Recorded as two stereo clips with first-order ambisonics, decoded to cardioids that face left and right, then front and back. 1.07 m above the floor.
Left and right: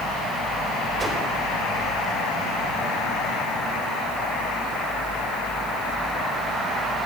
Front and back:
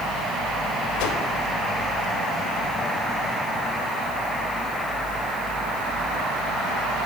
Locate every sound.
1.0 s a whoosh: 10° right, 4 m